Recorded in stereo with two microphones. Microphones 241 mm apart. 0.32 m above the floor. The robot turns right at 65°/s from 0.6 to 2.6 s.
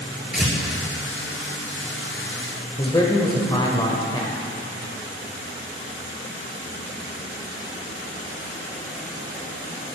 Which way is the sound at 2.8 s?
20° left (ahead or behind).